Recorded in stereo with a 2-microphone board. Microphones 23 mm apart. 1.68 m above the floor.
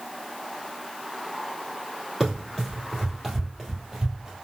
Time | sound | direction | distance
2.2 | running footsteps | 5° right (ahead or behind) | 2 m